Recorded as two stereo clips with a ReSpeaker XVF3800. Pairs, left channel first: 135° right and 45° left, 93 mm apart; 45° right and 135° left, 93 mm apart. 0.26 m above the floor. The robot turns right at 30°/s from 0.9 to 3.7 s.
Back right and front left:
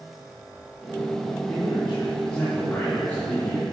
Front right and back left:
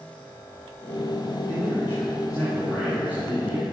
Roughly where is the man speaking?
Behind right.